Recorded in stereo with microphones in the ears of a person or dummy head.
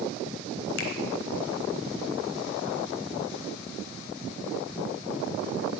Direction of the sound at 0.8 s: 65° left (ahead or behind).